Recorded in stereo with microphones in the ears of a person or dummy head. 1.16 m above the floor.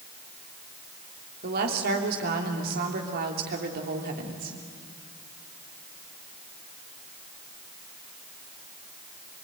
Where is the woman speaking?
60° right (ahead or behind), 3.5 m.